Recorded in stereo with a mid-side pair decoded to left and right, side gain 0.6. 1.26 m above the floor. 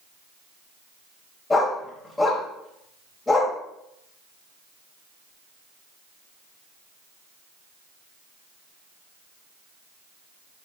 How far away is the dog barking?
About 2.5 m.